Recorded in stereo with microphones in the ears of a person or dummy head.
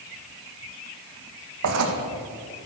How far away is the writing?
About 1.9 m.